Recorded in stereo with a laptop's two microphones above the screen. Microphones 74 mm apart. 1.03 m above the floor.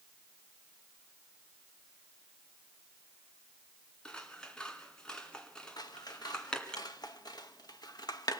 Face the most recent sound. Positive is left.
turn(degrees=65)  # may be behind; listen again after turning